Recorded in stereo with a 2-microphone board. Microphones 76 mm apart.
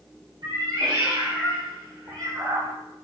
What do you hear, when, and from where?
0.4 s a cat meowing: 85° right, 1.8 m; by 2.7 s 40° right (ahead or behind), 1.6 m